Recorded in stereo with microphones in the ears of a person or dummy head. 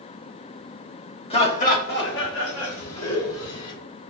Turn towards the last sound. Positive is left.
turn(degrees=70)  # may be behind; listen again after turning